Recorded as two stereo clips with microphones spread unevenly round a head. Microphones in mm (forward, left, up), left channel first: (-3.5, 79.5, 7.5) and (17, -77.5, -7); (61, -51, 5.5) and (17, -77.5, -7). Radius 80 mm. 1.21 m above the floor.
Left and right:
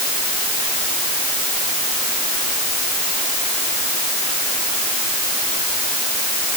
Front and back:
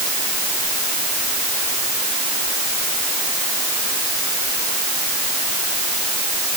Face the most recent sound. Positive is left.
No sound to turn to.